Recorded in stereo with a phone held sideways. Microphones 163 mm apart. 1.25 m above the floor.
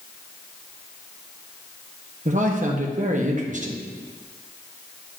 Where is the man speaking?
55° right (ahead or behind), 0.8 m.